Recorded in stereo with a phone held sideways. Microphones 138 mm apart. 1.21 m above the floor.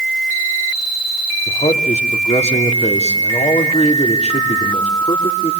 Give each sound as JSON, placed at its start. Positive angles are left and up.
{"t": 1.5, "sound": "a man speaking", "side_deg": 55, "distance_m": 3.0}